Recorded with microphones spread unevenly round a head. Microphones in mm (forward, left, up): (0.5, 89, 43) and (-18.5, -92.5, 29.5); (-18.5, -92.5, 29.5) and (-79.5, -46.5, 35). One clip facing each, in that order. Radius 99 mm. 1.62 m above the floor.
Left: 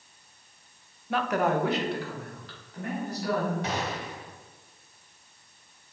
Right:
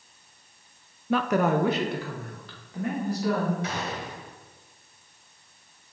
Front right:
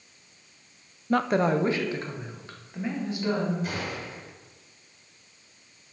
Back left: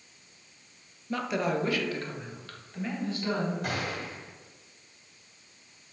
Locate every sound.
1.1 s a woman speaking: 75° right, 0.5 m; by 3.5 s 110° right, 3.5 m
3.6 s a gunshot: 130° left, 2 m